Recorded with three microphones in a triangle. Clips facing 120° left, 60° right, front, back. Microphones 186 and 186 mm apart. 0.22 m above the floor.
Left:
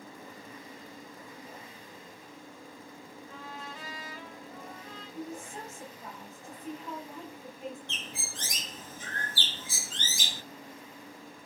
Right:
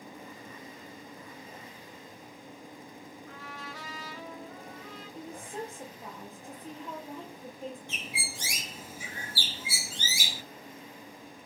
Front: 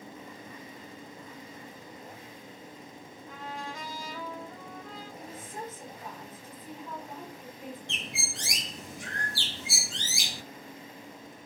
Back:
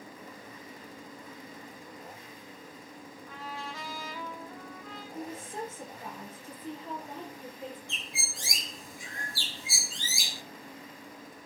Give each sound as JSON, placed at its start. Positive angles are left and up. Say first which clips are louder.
{"t": 3.3, "sound": "a trumpet", "louder": "left 2 dB, front 2 dB", "azimuth_deg": -75, "distance_m": 6.5}
{"t": 5.2, "sound": "a woman speaking", "louder": "right 1 dB, back 6 dB", "azimuth_deg": -115, "distance_m": 5.5}
{"t": 7.9, "sound": "a bird", "louder": "right 2 dB, front 4 dB", "azimuth_deg": 20, "distance_m": 0.6}